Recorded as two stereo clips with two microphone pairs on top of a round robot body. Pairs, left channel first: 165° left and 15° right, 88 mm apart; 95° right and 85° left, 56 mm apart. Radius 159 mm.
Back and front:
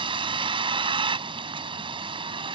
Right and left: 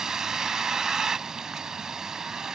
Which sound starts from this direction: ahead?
A vehicle, at 0.0 s.